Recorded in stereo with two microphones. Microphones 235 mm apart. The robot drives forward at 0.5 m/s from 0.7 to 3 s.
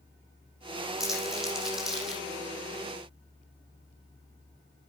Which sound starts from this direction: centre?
Crumpling, at 1.0 s.